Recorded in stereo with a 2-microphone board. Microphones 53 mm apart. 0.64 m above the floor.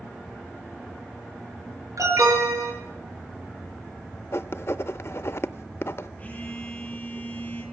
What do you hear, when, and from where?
2.0 s an alarm: 85° right, 6 m
4.3 s writing: 50° left (ahead or behind), 0.5 m
6.2 s a phone buzzing: 30° left (ahead or behind), 9.5 m